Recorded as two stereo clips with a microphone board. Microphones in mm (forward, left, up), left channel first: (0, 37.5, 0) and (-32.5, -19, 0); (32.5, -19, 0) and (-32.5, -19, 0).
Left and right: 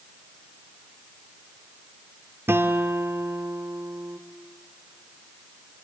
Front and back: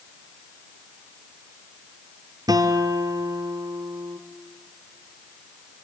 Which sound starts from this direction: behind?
A guitar, at 2.5 s.